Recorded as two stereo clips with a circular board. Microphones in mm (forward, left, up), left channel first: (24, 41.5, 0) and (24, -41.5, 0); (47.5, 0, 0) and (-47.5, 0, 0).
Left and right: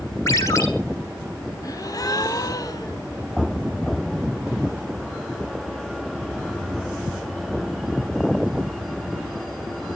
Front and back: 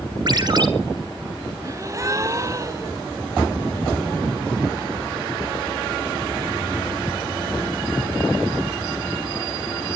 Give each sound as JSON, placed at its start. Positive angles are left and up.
{"t": 0.3, "sound": "a ringtone", "azimuth_deg": 140, "distance_m": 2.5}
{"t": 1.6, "sound": "a gasp", "azimuth_deg": 125, "distance_m": 0.9}